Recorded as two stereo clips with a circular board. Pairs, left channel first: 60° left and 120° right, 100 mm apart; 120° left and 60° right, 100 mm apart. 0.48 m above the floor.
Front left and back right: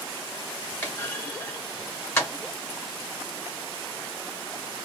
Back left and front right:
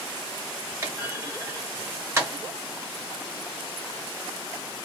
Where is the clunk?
5° right, 1.8 m.